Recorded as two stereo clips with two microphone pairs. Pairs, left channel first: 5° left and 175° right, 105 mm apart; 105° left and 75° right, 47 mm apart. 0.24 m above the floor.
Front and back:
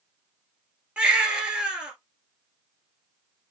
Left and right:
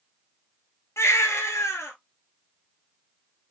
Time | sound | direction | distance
1.0 | a baby crying | 105° left | 1.5 m